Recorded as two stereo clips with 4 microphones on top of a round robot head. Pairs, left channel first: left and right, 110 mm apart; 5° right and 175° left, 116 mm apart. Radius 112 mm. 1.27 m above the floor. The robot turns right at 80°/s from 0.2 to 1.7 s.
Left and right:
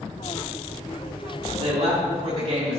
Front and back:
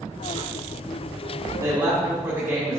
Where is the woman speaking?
125° right, 2 m; by 2.8 s 120° right, 2 m.